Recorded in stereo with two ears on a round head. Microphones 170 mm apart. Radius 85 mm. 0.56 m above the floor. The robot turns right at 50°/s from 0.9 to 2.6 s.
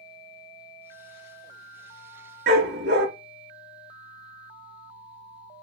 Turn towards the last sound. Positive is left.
turn(degrees=-65)  # may be behind; listen again after turning